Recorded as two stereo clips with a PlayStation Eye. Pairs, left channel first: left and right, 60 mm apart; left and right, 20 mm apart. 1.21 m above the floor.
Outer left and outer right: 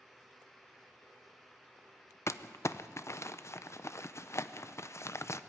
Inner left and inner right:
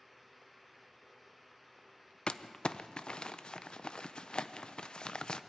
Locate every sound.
2.3 s crumpling: 50° left (ahead or behind), 0.5 m